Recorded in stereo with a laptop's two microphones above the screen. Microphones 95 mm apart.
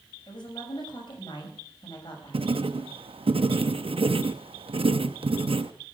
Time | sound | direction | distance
0.3 | a woman speaking | 55° left (ahead or behind) | 6.5 m
2.3 | writing | 80° right | 0.7 m